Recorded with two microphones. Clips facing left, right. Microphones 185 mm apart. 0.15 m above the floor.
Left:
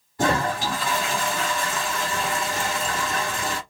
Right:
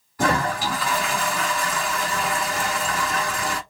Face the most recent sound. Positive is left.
turn(degrees=25)  # may be behind; listen again after turning